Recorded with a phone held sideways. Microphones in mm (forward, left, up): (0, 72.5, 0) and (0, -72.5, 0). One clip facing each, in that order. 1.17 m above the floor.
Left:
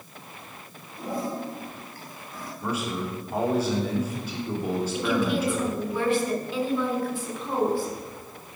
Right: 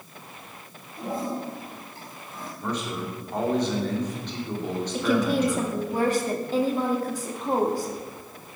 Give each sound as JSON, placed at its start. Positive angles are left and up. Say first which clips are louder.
{"t": 1.0, "sound": "a toilet flushing", "louder": "right 1 dB", "side_deg": -25, "distance_m": 3.5}
{"t": 2.6, "sound": "a man speaking", "louder": "left 1 dB", "side_deg": 5, "distance_m": 3.5}
{"t": 4.9, "sound": "a woman speaking", "louder": "right 4 dB", "side_deg": -40, "distance_m": 2.0}